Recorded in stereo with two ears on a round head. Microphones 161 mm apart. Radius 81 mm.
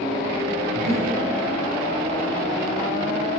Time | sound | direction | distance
0.8 | breathing | 40° right (ahead or behind) | 6.5 m